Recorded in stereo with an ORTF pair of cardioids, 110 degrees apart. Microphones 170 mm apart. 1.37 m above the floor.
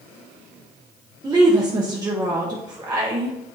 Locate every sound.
1.2 s a woman speaking: 25° right, 1.0 m